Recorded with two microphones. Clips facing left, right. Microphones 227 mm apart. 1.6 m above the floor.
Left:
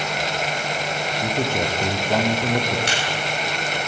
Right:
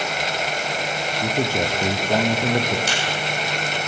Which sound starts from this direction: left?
A crack, at 2.9 s.